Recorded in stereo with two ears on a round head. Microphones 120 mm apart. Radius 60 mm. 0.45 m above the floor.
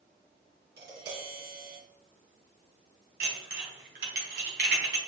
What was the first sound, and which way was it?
Tapping, 85° right.